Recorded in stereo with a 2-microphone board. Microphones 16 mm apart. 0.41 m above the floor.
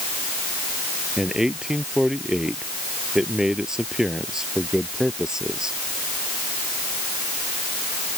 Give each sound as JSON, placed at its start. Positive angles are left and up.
{"t": 1.2, "sound": "a man speaking", "side_deg": -45}